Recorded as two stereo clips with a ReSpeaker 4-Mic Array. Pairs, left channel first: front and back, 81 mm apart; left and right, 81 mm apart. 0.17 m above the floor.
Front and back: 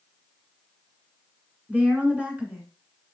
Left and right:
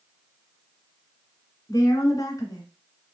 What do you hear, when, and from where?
1.7 s a woman speaking: 115° left, 1.6 m